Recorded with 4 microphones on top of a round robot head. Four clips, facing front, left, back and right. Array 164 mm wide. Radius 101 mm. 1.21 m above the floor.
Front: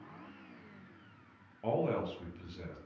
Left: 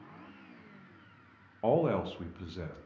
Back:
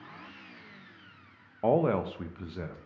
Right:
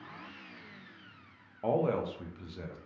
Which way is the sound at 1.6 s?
165° left.